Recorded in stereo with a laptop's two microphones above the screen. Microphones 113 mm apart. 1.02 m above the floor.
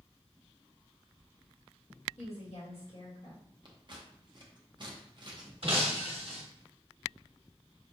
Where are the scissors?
45° right (ahead or behind), 0.6 m.